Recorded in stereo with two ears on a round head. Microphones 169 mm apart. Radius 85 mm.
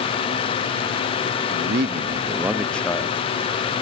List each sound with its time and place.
1.5 s a man speaking: 70° right (ahead or behind), 1.1 m; by 3.7 s 30° left (ahead or behind), 2 m